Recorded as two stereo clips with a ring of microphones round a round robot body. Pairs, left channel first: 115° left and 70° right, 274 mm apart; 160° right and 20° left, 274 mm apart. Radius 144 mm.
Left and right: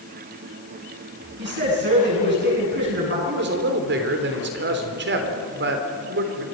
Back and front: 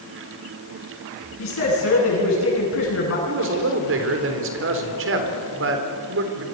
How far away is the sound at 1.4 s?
About 9.5 m.